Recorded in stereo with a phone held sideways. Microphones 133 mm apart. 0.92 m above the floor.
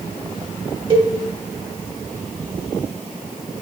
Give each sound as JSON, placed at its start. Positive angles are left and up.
{"t": 0.9, "sound": "a cowbell", "side_deg": -35, "distance_m": 1.0}